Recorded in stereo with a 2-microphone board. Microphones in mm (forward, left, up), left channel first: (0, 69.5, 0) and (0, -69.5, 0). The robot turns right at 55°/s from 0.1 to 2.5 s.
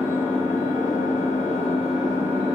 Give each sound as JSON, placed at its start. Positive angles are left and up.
{"t": 0.0, "sound": "an engine running", "azimuth_deg": 40, "distance_m": 3.5}